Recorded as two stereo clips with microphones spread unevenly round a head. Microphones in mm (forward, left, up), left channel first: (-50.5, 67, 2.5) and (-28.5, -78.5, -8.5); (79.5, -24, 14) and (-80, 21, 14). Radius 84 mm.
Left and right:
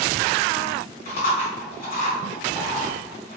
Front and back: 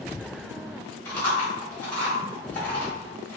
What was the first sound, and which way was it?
Chewing, 60° left.